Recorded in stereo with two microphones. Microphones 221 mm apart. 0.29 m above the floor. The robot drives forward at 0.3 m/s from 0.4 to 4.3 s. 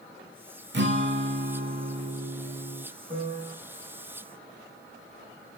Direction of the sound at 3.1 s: 30° right (ahead or behind).